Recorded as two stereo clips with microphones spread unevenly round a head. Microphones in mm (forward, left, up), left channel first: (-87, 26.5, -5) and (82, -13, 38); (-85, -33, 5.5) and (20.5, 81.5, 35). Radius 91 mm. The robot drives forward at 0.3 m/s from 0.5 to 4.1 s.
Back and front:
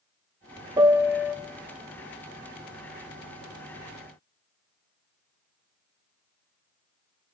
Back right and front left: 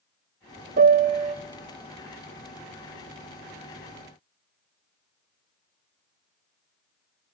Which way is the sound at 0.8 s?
40° left.